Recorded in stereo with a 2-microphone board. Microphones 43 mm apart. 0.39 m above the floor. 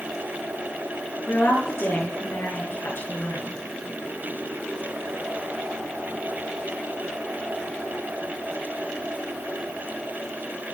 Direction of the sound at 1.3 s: 80° left.